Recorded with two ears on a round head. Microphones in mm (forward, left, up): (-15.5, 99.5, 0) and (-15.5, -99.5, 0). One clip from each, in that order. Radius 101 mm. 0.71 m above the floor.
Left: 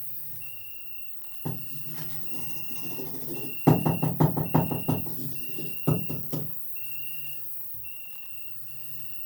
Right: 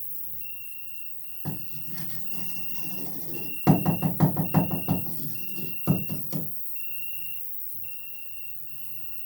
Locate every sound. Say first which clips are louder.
0.0 s an insect: even; 20° right (ahead or behind), 1.5 m
1.4 s writing: left 1 dB; 25° right (ahead or behind), 4 m